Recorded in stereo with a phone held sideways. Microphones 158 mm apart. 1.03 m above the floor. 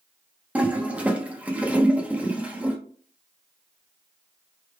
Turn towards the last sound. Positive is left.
turn(degrees=-10)  # may be behind; listen again after turning